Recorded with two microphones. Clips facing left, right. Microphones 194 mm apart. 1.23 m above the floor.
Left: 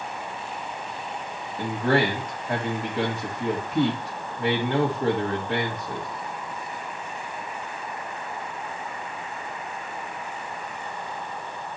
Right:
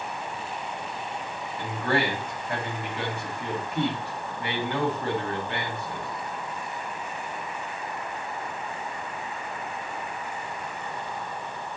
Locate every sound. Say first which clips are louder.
1.6 s a man speaking: left 4 dB; 40° left (ahead or behind), 1.9 m